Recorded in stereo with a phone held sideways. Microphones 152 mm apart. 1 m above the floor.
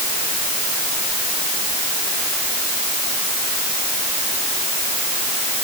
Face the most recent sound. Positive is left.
No sound to turn to.